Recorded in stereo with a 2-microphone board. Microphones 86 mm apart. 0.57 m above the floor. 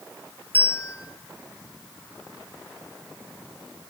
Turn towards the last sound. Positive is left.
turn(degrees=25)  # may be behind; listen again after turning